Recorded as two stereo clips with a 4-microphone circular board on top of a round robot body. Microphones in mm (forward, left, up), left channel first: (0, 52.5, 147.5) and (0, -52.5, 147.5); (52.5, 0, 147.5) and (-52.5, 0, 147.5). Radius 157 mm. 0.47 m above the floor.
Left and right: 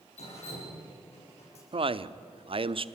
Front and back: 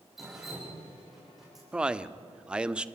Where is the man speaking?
100° right, 1.2 m.